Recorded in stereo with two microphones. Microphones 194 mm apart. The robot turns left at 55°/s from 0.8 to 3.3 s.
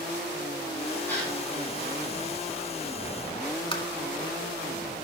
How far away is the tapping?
About 0.9 m.